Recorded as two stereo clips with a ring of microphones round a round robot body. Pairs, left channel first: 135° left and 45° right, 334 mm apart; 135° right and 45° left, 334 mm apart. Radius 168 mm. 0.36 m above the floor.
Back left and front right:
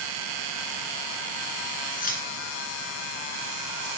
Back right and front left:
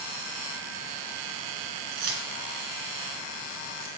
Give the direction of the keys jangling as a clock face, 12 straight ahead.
10 o'clock.